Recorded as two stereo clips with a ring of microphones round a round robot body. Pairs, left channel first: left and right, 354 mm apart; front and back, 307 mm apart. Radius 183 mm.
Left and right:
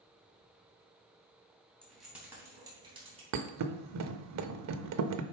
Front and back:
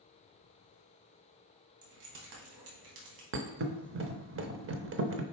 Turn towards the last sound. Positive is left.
turn(degrees=-130)